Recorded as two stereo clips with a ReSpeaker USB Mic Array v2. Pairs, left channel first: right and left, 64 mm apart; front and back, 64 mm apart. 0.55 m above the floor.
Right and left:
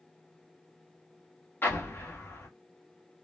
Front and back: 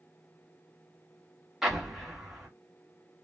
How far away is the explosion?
About 0.9 m.